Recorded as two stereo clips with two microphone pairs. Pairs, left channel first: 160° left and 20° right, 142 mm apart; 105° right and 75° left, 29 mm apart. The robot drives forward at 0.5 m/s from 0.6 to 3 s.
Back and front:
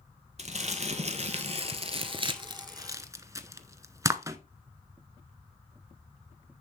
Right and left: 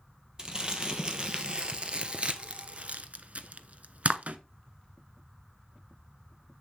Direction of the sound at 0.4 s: 20° left.